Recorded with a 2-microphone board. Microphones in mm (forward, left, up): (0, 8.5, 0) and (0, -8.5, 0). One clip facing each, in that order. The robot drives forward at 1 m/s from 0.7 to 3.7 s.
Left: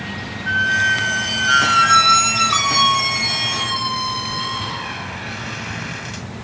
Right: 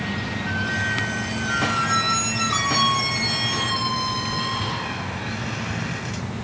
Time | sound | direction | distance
0.5 | a squeak | 50° left (ahead or behind) | ?